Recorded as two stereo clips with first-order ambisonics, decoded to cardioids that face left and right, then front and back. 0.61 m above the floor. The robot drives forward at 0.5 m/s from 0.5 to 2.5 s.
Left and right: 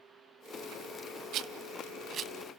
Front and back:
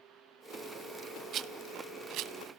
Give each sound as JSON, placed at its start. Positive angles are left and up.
{"t": 1.3, "sound": "a rattle", "azimuth_deg": -130, "distance_m": 0.8}